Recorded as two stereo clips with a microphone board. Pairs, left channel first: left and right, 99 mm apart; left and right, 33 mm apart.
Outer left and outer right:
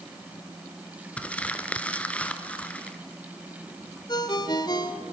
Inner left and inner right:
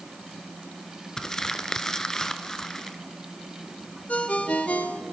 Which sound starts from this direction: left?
A ringtone, at 4.1 s.